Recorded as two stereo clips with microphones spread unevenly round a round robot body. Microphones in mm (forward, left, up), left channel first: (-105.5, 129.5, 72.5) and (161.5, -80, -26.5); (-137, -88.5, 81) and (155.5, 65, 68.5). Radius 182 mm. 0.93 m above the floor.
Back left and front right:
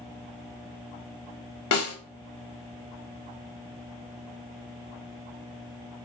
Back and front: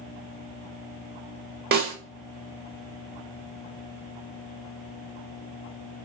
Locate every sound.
1.7 s a snare drum: 90° left, 1.2 m